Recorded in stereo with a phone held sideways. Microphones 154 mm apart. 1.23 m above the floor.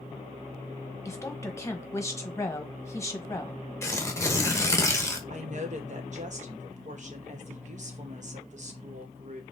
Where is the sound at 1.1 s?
20° left (ahead or behind), 1.3 m.